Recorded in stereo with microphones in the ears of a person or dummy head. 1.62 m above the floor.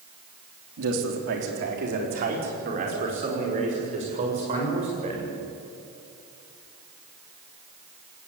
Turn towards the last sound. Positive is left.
turn(degrees=-25)  # may be behind; listen again after turning